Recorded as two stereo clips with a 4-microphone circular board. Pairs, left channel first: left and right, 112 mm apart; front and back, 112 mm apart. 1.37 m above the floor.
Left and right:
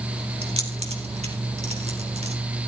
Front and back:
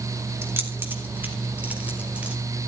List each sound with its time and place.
0.4 s keys jangling: 115° right, 3 m; by 2.4 s 100° right, 4.5 m